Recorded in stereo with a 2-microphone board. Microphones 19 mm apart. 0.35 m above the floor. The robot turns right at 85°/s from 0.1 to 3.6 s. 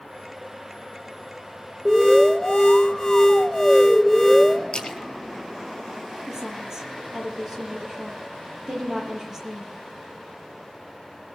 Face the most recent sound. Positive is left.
turn(degrees=-25)  # may be behind; listen again after turning